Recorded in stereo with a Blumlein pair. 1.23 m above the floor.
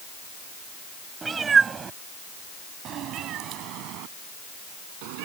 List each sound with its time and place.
1.2 s a cat meowing: 15° right; by 5.2 s 45° right